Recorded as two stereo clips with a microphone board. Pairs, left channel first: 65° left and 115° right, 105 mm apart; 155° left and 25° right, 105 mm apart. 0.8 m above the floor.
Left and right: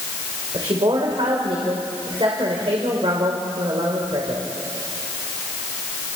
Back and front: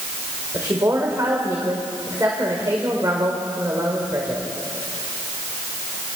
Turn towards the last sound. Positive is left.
turn(degrees=-80)